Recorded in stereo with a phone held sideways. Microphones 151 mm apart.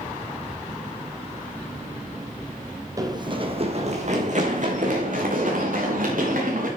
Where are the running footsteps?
25° right (ahead or behind), 1.5 m; by 6.7 s 70° right (ahead or behind), 5 m.